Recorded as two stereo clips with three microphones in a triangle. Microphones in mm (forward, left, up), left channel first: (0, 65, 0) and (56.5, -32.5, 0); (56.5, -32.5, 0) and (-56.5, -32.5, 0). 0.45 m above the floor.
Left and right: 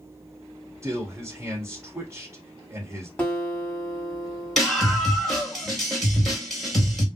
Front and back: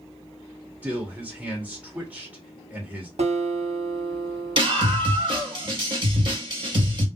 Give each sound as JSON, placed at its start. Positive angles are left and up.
{"t": 0.8, "sound": "a man speaking", "azimuth_deg": -110, "distance_m": 1.7}
{"t": 3.2, "sound": "a guitar", "azimuth_deg": -160, "distance_m": 1.4}
{"t": 4.6, "sound": "a scream", "azimuth_deg": -155, "distance_m": 2.0}